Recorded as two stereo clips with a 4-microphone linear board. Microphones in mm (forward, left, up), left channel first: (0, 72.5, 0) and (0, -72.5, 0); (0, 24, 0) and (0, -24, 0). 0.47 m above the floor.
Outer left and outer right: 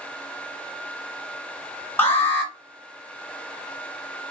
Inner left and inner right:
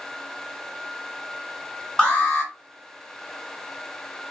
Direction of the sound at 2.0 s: 15° left (ahead or behind).